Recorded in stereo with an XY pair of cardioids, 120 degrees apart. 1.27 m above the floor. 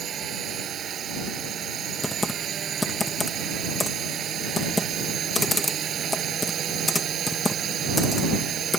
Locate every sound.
0.0 s a drone: 50° right
2.0 s typing on a keyboard: 10° left